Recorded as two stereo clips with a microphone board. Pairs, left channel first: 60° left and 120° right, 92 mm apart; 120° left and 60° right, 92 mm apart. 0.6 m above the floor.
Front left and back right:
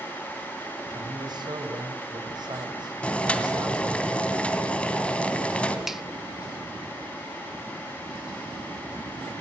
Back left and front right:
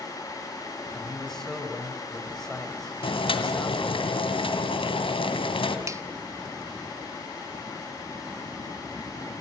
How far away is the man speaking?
About 3.5 m.